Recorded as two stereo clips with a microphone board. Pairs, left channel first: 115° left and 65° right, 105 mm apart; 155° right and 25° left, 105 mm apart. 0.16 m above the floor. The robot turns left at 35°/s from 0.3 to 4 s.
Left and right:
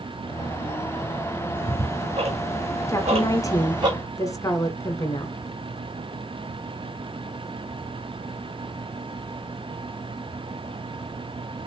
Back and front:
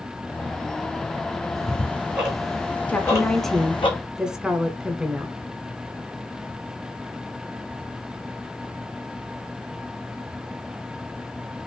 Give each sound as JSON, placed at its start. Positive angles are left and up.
{"t": 1.6, "sound": "ticking", "azimuth_deg": -35, "distance_m": 2.5}
{"t": 2.9, "sound": "a woman speaking", "azimuth_deg": 140, "distance_m": 1.3}